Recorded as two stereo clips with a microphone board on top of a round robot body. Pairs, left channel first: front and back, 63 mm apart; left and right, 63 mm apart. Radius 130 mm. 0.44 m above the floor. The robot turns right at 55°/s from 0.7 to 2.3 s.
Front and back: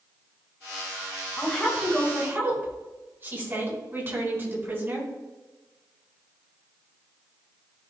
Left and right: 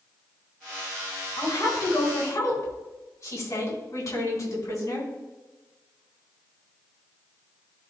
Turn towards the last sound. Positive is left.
turn(degrees=125)